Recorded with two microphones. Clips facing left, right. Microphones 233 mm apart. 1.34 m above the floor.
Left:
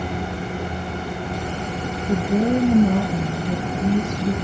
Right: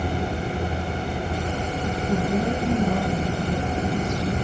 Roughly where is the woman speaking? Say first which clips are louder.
Left 6 dB; left.